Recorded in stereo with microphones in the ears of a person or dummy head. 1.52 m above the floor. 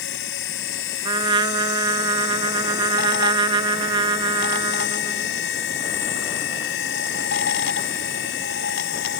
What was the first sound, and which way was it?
A machine running, 65° left (ahead or behind).